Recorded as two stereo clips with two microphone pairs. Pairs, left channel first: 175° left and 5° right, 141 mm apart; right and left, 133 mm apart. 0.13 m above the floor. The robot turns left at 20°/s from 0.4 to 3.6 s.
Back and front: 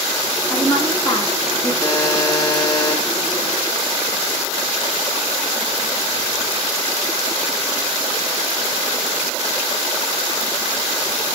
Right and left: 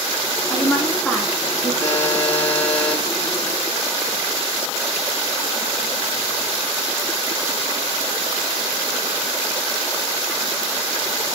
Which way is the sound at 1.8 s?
140° right.